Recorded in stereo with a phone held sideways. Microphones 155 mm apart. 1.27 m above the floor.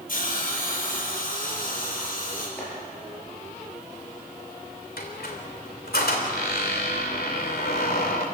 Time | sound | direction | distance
0.1 | a hiss | 65° left (ahead or behind) | 6 m
2.6 | chopping | 10° left (ahead or behind) | 8.5 m
5.0 | a squeak | 85° left | 3.5 m